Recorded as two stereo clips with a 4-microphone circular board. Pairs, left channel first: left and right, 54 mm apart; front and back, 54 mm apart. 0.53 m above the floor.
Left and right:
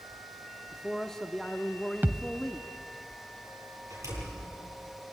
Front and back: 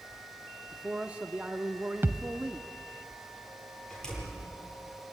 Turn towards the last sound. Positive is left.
turn(degrees=-75)